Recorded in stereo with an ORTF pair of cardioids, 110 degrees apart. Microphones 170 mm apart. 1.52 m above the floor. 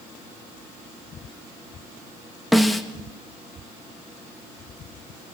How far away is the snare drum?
About 1.6 m.